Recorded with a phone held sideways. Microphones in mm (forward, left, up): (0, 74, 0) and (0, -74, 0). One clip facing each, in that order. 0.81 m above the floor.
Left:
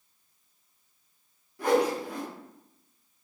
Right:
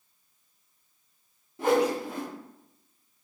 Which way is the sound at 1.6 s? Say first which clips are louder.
Right 1 dB; 25° right (ahead or behind).